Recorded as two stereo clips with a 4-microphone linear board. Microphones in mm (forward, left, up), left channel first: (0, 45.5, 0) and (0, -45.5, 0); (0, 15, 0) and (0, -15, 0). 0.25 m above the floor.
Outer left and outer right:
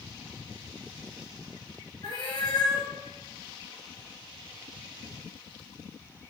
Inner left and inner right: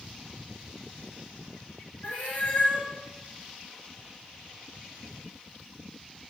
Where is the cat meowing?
55° left (ahead or behind), 4.5 m.